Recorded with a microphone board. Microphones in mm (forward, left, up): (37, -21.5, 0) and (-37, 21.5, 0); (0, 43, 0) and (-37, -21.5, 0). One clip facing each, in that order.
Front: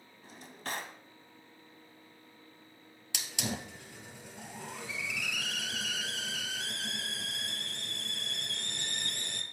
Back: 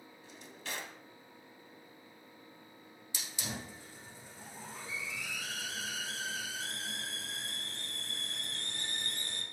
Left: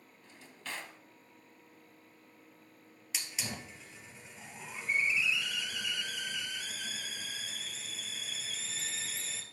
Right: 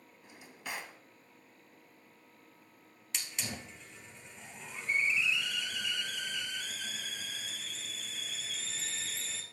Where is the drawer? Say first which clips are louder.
Front 5 dB, right 2 dB; 50° right, 0.9 m.